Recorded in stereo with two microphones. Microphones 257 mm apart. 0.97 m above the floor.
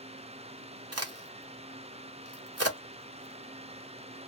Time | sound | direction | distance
0.9 | a crack | 70° right (ahead or behind) | 0.9 m